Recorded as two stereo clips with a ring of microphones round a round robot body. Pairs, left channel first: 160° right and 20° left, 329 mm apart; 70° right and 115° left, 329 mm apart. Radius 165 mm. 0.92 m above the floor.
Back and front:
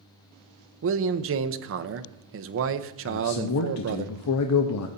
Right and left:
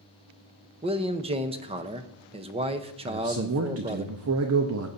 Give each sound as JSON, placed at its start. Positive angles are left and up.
{"t": 0.8, "sound": "a man speaking", "azimuth_deg": 45, "distance_m": 0.7}
{"t": 3.0, "sound": "a man speaking", "azimuth_deg": 160, "distance_m": 0.8}